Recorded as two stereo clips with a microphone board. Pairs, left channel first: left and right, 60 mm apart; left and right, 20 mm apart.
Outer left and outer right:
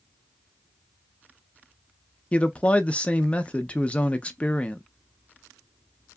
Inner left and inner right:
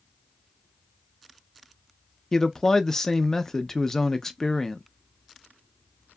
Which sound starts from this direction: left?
A man speaking, at 2.3 s.